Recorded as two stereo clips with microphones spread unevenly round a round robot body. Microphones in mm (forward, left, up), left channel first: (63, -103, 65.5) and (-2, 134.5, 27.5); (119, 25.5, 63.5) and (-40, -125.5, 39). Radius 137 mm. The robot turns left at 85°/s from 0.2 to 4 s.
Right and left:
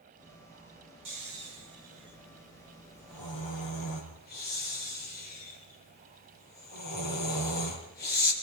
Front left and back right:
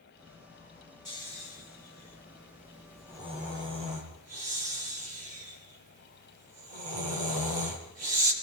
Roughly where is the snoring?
Behind left.